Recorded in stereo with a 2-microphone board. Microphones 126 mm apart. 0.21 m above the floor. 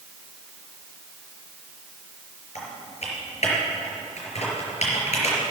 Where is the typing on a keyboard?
60° left (ahead or behind), 4 m.